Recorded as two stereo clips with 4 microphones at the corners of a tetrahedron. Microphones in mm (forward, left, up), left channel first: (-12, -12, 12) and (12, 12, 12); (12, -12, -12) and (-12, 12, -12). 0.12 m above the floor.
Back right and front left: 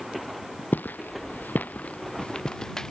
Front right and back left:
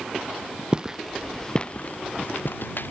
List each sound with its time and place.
0.7 s footsteps: 160° right; by 2.9 s 60° right